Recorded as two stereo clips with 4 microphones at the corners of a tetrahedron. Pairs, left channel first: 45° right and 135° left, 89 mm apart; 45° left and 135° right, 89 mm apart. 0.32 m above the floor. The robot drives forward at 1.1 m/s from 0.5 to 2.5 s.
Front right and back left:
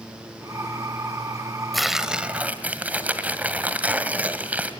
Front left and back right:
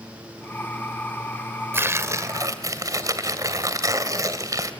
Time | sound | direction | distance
1.7 | tearing paper | 135° right | 1.5 m